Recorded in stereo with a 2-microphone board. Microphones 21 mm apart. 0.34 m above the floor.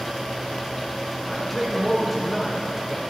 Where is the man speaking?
10° left (ahead or behind), 0.8 m.